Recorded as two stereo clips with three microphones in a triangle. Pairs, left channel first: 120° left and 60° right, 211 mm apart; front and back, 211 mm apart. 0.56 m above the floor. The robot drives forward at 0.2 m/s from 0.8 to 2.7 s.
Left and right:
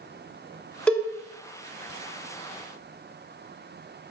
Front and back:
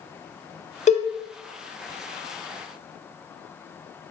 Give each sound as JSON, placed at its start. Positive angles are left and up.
{"t": 0.9, "sound": "a cowbell", "azimuth_deg": 35, "distance_m": 0.6}